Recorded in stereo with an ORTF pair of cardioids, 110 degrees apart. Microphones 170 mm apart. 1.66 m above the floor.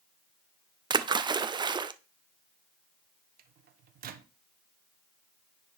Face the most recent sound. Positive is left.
turn(degrees=-60)